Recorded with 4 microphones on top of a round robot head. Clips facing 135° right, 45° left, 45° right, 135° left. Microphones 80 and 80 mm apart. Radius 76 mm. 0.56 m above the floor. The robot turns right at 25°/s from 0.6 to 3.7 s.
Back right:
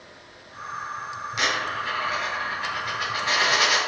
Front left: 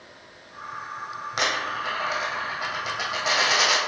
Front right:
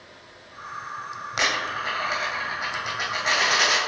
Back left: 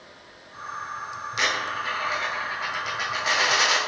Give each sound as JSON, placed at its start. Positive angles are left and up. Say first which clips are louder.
{"t": 1.4, "sound": "a dropped coin", "louder": "even, front right 1 dB", "azimuth_deg": 5, "distance_m": 2.0}